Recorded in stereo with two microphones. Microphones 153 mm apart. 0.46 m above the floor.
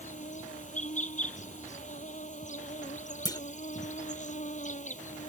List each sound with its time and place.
0.0 s an insect: 55° left (ahead or behind)
3.2 s a clunk: 25° left (ahead or behind)